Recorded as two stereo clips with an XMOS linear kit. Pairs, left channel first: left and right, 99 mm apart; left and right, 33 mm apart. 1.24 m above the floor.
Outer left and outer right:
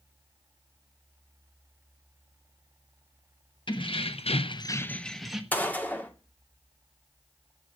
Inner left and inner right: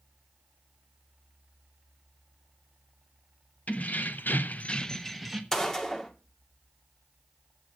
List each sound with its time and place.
3.7 s keys jangling: 55° left (ahead or behind), 1.2 m; by 5.4 s 5° right (ahead or behind), 1.4 m
5.5 s a gunshot: 15° left (ahead or behind), 1.7 m